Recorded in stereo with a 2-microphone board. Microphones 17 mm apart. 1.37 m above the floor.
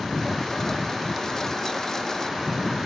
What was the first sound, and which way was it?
A lawn mower, 30° left (ahead or behind).